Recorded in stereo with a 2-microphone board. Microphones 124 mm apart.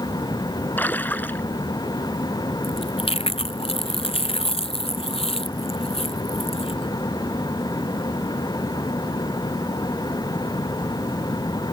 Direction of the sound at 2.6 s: 50° left (ahead or behind).